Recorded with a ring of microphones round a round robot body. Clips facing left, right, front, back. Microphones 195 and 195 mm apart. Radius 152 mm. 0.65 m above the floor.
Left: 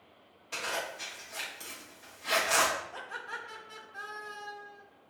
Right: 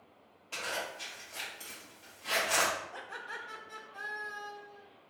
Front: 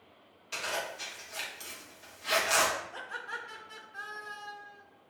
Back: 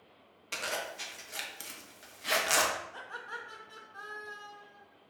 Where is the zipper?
170° left, 0.7 m.